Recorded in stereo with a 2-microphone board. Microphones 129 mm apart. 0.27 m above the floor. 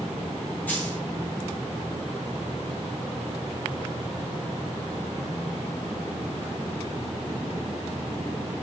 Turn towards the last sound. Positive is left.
turn(degrees=10)  # may be behind; listen again after turning